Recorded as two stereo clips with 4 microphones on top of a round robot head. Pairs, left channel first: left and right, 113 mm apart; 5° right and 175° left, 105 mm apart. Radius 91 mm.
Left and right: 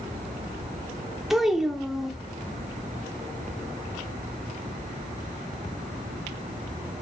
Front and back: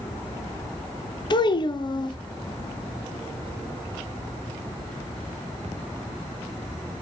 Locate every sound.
1.3 s a child speaking: 5° right, 0.5 m